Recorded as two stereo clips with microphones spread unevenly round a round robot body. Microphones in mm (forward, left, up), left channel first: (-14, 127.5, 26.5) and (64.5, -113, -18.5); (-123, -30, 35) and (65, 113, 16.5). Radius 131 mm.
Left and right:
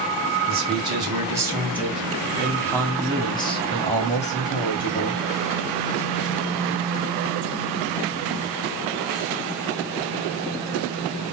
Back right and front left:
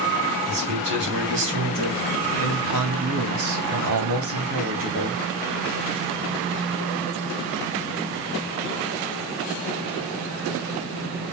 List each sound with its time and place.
0.5 s a man speaking: 10° right, 3 m; by 5.2 s 55° left, 2.5 m